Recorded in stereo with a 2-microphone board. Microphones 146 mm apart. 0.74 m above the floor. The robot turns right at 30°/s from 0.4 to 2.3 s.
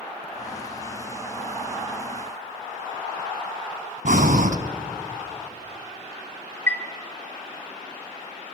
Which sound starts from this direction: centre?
A chime, at 6.7 s.